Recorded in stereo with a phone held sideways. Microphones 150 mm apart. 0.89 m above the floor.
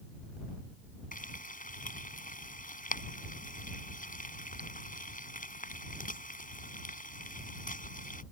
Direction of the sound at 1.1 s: 65° left (ahead or behind).